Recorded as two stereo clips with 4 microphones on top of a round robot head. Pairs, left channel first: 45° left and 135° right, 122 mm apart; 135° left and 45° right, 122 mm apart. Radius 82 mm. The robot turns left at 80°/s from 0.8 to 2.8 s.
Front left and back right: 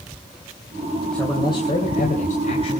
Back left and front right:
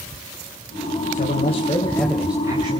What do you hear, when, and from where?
1.1 s a man speaking: 130° left, 3 m; by 2.8 s 5° right, 3 m